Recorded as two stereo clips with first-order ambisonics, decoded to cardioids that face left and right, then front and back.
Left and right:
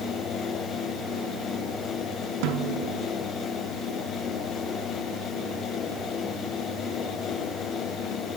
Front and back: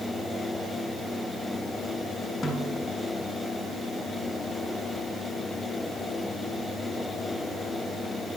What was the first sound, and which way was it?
A snare drum, 80° right.